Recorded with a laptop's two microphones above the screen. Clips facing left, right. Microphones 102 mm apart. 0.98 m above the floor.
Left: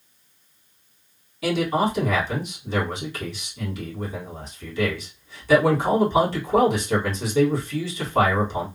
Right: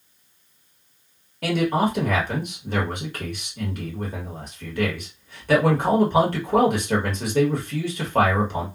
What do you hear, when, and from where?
1.4 s a man speaking: 55° right (ahead or behind), 1.2 m